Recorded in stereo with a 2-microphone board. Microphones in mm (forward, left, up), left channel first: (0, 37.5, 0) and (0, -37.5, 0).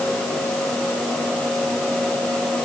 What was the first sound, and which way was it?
Only background noise.